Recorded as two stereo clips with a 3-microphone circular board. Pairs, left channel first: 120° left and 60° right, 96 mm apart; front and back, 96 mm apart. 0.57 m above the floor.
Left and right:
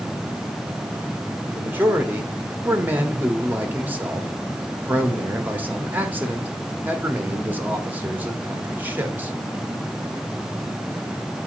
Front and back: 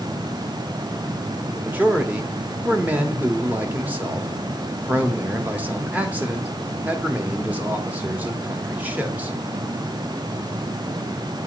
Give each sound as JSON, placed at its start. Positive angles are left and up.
{"t": 1.5, "sound": "a man speaking", "azimuth_deg": -115, "distance_m": 1.0}